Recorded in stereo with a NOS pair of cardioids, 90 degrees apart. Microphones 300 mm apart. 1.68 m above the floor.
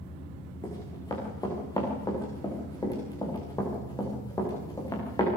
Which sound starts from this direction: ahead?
Running footsteps, at 0.6 s.